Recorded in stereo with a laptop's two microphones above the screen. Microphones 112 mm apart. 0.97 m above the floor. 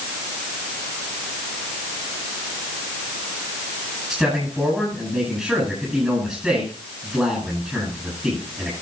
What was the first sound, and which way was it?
A man speaking, centre (ahead or behind).